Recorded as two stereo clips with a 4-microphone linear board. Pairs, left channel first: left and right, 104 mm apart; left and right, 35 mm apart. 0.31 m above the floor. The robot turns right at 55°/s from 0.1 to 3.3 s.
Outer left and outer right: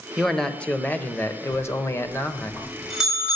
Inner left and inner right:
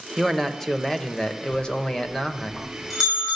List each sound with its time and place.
0.2 s a man speaking: centre (ahead or behind), 0.9 m; by 2.5 s 20° left (ahead or behind), 0.9 m
1.5 s a bell: 105° left, 4.5 m; by 3.4 s 160° right, 4.5 m